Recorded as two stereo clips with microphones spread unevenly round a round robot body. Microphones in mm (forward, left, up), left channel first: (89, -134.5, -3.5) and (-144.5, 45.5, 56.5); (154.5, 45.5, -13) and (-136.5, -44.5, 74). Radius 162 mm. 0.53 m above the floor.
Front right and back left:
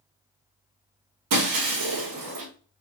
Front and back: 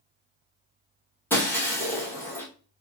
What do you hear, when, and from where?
1.3 s breaking glass: 105° left, 1.2 m